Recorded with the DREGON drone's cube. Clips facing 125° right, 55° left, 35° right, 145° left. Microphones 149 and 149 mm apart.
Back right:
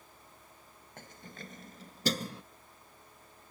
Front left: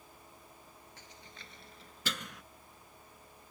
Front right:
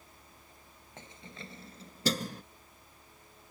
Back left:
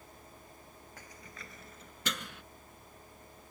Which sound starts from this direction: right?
Keys jangling, at 1.0 s.